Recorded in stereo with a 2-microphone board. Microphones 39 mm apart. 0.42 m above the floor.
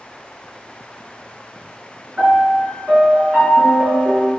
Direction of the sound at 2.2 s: 40° right (ahead or behind).